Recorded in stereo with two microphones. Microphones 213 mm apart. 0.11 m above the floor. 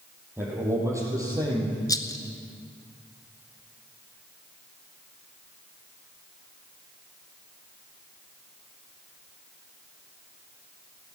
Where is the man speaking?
10° right (ahead or behind), 4.5 m; by 1.8 s 20° right (ahead or behind), 3.5 m.